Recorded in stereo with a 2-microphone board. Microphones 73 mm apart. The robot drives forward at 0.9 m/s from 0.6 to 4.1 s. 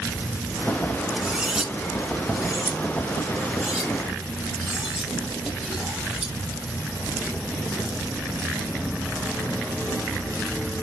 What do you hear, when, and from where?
1.2 s cutlery clinking: 10° right (ahead or behind), 0.7 m; by 6.3 s 5° right (ahead or behind), 3 m